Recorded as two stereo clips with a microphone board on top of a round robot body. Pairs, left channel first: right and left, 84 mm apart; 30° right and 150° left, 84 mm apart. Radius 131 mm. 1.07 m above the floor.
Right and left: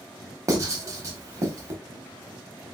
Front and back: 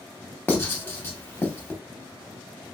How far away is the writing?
About 0.9 m.